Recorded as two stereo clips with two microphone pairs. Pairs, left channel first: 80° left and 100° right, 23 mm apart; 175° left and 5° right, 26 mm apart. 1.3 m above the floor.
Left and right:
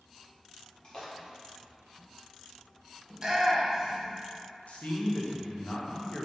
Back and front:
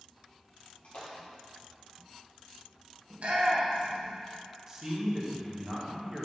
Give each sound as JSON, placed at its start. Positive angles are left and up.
{"t": 0.8, "sound": "a splash", "azimuth_deg": 135, "distance_m": 1.5}
{"t": 3.1, "sound": "a shout", "azimuth_deg": -40, "distance_m": 1.3}
{"t": 4.7, "sound": "a man speaking", "azimuth_deg": 60, "distance_m": 1.2}